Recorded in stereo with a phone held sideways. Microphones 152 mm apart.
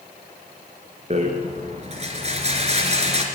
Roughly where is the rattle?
Right.